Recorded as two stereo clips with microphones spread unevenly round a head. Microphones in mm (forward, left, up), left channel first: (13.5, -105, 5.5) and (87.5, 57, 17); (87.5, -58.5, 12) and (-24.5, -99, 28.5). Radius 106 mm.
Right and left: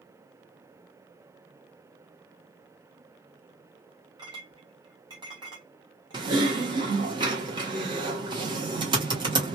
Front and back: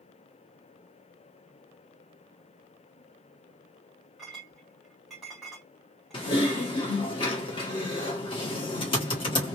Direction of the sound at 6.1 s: 35° left.